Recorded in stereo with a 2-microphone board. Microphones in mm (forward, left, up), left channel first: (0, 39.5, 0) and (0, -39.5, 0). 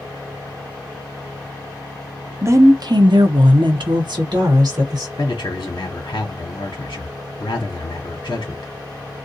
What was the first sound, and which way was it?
A woman speaking, 35° right (ahead or behind).